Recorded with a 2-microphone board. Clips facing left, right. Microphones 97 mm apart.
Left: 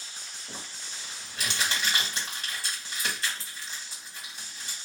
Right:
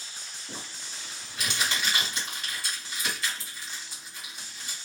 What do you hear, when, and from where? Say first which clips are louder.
0.5 s crumpling: right 1 dB; 35° left (ahead or behind), 1.6 m